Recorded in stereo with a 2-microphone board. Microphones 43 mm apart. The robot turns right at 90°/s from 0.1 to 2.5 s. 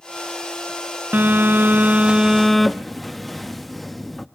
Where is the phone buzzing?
120° right, 0.9 m; by 4.3 s 5° left, 0.9 m.